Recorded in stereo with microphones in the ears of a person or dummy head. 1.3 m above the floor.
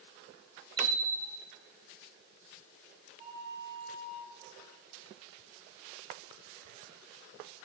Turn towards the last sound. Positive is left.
turn(degrees=-35)  # may be behind; listen again after turning